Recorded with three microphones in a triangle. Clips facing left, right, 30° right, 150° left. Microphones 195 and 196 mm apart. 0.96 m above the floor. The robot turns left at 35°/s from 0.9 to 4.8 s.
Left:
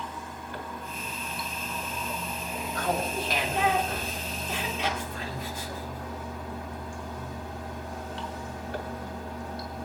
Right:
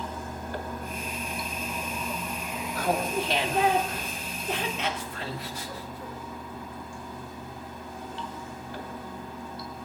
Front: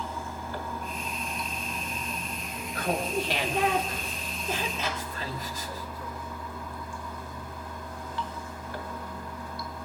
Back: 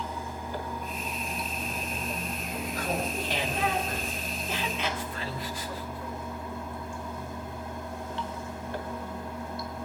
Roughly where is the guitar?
I don't hear a guitar.